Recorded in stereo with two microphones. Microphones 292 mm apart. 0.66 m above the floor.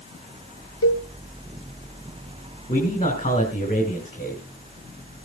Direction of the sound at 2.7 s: 30° left (ahead or behind).